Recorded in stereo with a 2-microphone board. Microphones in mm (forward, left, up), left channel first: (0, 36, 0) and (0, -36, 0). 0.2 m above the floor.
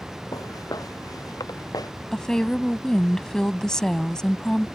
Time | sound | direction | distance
0.3 | footsteps | 55° left (ahead or behind) | ?
2.1 | a woman speaking | 10° left (ahead or behind) | ?